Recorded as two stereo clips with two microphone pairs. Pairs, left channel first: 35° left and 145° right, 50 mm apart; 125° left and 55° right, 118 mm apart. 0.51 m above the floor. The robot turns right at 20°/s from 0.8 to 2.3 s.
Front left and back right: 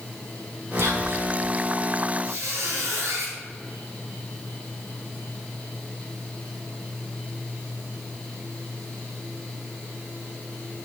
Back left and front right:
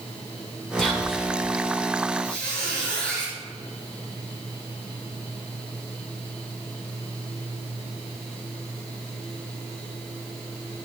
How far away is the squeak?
About 2.5 m.